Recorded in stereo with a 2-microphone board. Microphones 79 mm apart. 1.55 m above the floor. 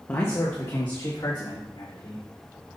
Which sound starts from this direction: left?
A man speaking, at 0.1 s.